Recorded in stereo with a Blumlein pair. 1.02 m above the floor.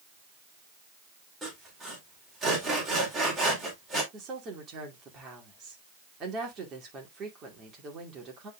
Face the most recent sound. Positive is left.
turn(degrees=-25)